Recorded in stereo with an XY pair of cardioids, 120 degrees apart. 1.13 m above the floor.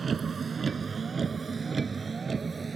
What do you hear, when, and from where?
0.0 s a vehicle: 35° right; by 2.8 s 30° right